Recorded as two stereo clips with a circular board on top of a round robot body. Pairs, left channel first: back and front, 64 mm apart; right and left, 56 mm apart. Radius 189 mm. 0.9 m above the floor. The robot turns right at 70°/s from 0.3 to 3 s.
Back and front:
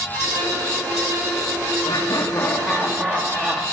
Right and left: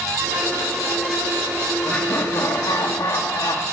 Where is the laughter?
150° right, 1.5 m; by 3.6 s 70° right, 1.5 m.